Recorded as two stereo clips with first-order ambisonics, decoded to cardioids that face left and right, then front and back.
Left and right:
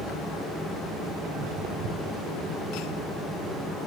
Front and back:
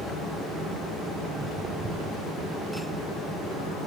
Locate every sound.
1.2 s footsteps: 110° right, 1.2 m